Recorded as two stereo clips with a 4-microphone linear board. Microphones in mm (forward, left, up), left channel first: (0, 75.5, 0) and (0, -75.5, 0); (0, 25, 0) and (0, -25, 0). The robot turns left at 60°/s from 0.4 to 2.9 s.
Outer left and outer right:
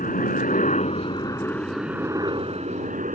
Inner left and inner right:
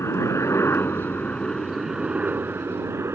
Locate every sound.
0.0 s a helicopter: 80° left; by 3.2 s 70° right